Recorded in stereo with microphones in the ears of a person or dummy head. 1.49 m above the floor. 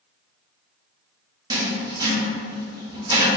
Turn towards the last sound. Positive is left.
turn(degrees=-20)  # may be behind; listen again after turning